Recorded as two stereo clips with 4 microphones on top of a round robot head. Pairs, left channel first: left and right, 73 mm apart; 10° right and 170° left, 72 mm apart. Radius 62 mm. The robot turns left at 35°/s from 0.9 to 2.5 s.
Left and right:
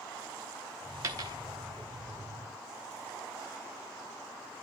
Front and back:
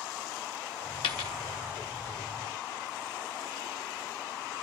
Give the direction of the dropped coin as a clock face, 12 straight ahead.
1 o'clock.